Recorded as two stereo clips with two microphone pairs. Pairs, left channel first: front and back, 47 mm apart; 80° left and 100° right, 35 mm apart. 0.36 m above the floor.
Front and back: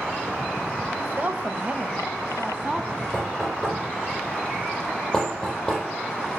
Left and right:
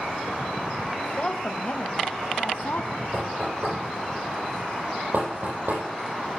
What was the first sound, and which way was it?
A woman speaking, 150° left.